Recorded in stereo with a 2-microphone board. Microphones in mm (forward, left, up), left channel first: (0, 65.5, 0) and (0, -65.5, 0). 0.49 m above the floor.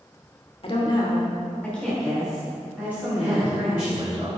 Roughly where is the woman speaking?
Left.